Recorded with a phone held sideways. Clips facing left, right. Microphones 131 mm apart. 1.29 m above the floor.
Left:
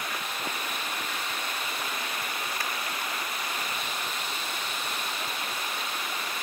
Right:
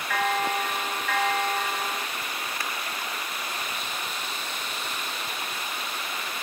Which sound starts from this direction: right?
A bell, at 0.1 s.